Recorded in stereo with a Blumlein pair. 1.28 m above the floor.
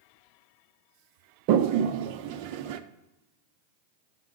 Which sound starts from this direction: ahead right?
A toilet flushing, at 1.5 s.